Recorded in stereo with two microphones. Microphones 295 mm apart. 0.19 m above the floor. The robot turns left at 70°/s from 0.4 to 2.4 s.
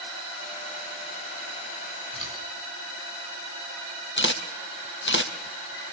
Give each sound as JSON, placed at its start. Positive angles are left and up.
{"t": 2.1, "sound": "scissors", "side_deg": 85, "distance_m": 7.5}
{"t": 4.2, "sound": "a camera shutter", "side_deg": 40, "distance_m": 1.2}